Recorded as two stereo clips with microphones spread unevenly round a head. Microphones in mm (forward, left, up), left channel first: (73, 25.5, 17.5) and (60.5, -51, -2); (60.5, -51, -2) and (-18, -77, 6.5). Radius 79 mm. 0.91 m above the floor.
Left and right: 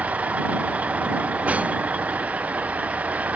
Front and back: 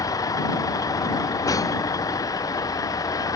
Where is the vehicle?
25° right.